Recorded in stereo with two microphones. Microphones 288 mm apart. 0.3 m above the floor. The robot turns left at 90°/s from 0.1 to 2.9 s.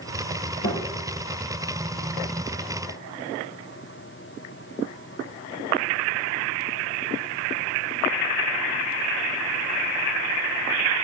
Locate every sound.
0.6 s a thud: 75° left (ahead or behind), 8 m; by 0.8 s 55° left (ahead or behind), 8 m